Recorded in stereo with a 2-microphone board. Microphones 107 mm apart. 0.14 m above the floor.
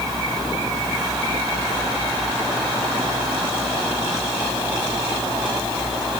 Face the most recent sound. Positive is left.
No sound to turn to.